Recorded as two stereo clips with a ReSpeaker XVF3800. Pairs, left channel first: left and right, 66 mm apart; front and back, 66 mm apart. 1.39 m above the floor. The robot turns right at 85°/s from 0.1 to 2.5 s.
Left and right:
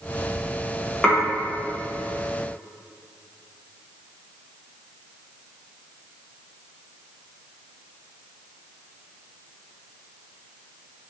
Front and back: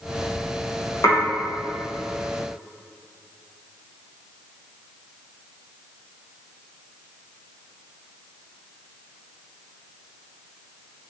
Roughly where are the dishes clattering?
Ahead.